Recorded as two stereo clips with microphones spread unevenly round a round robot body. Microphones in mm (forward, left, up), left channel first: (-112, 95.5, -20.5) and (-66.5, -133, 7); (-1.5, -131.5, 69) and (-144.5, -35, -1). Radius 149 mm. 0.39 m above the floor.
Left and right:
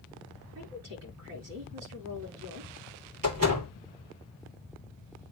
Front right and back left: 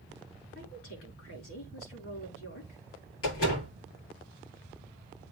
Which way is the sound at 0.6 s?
25° right.